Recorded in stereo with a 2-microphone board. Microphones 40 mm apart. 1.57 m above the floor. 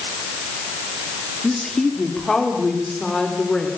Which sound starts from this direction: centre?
A woman speaking, at 1.4 s.